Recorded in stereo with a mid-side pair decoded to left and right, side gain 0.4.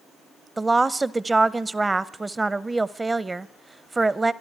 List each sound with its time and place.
0.6 s a woman speaking: 20° right, 0.5 m